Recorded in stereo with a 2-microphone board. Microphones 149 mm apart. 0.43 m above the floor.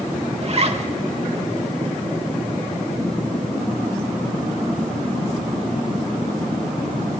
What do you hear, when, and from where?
0.4 s a zipper: 45° right (ahead or behind), 0.9 m